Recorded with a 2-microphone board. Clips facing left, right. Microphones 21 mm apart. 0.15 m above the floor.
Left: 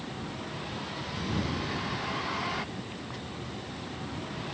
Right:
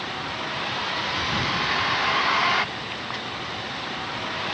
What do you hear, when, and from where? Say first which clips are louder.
0.0 s a vehicle: right 9 dB; 50° right (ahead or behind)